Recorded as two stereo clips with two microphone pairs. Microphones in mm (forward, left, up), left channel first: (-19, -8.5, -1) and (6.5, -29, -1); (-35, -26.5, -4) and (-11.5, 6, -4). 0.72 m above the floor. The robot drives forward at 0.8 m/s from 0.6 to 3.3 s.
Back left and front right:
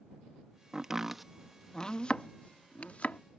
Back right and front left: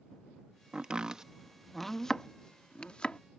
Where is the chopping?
15° left; by 3.2 s 175° left.